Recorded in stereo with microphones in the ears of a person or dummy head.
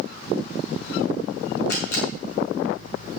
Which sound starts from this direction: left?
A camera shutter, at 1.7 s.